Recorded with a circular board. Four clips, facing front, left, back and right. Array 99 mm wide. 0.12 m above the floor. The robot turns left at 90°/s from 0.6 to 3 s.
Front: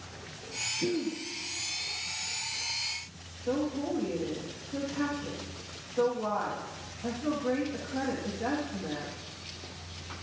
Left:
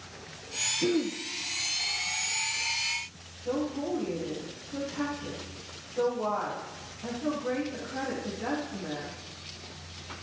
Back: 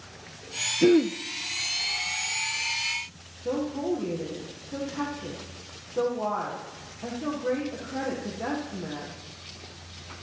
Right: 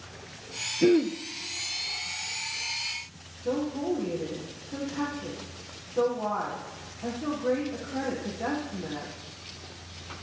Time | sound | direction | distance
0.8 | throat clearing | 150° right | 0.9 m
3.5 | a woman speaking | 155° right | 5.5 m